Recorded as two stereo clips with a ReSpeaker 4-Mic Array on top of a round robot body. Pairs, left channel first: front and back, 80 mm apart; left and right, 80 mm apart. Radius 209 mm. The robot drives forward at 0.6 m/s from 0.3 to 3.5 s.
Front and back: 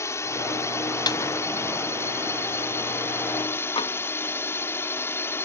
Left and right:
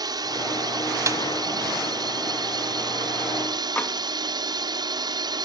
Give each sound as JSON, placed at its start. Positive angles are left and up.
{"t": 0.0, "sound": "a drone", "azimuth_deg": -55}
{"t": 1.1, "sound": "a snare drum", "azimuth_deg": -35}
{"t": 3.8, "sound": "tapping", "azimuth_deg": 20}